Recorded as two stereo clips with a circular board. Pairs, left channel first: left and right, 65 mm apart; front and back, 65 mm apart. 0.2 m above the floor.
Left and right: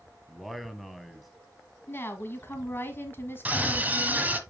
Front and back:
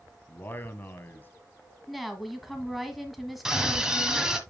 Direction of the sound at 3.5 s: 110° right.